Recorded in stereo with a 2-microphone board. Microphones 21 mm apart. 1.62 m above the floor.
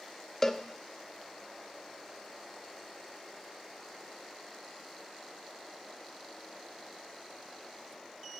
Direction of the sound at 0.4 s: 15° left (ahead or behind).